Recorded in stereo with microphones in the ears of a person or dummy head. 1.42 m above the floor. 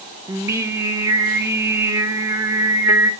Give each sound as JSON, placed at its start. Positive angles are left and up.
{"t": 0.3, "sound": "singing", "side_deg": -10, "distance_m": 0.6}